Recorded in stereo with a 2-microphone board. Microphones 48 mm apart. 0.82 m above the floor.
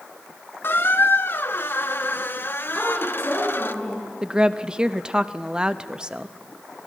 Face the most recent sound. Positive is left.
turn(degrees=-20)  # may be behind; listen again after turning